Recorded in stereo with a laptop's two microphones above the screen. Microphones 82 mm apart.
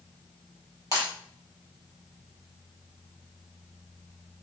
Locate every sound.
0.9 s breaking glass: 40° right (ahead or behind), 5 m